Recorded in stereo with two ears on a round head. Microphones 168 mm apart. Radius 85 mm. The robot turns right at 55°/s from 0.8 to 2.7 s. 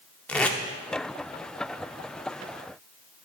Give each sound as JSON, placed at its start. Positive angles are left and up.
{"t": 0.3, "sound": "tape being pulled", "side_deg": 5, "distance_m": 0.5}